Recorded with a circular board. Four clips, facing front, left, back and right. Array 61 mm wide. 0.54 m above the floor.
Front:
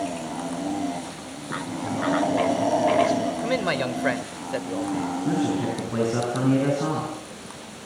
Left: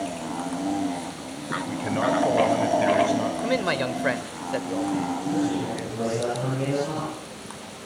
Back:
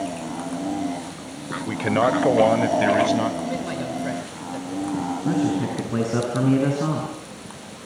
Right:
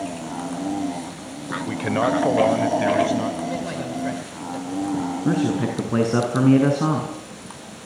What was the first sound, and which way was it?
A man speaking, 150° right.